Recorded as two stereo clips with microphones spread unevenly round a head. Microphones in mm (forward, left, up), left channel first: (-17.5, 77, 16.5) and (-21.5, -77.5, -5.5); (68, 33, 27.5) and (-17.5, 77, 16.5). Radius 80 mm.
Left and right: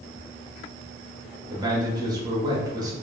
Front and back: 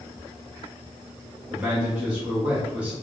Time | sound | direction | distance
1.5 | a man speaking | 140° right | 1.0 m